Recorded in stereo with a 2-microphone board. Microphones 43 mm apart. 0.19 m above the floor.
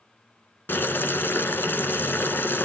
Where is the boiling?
60° left (ahead or behind), 1.2 m.